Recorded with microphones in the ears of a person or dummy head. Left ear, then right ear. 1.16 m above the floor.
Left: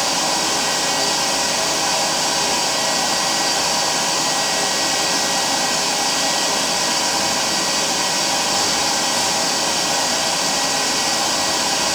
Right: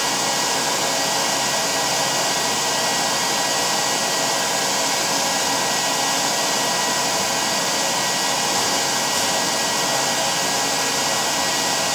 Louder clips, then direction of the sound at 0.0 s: Left 2 dB; 15° right (ahead or behind).